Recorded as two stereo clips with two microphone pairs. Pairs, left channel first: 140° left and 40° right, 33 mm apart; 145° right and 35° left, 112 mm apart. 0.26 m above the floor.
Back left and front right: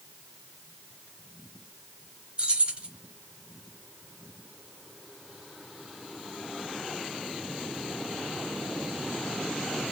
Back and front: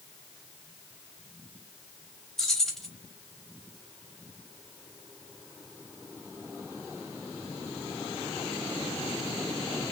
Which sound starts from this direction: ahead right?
Keys jangling, at 2.4 s.